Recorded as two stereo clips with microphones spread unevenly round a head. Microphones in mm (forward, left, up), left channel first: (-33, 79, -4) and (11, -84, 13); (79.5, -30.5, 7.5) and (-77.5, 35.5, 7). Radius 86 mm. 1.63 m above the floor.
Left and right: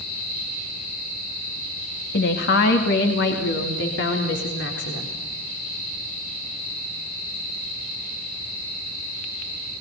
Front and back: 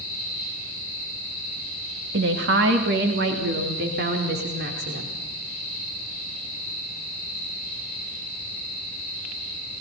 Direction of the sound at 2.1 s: 135° left.